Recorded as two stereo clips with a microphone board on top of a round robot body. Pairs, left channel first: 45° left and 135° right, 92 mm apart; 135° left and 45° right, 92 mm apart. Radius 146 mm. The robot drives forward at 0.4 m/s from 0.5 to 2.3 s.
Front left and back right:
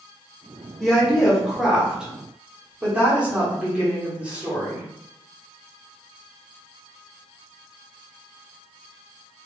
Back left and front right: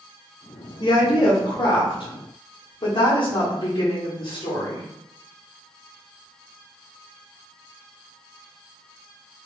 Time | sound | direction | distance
0.8 | a woman speaking | 125° left | 1.1 m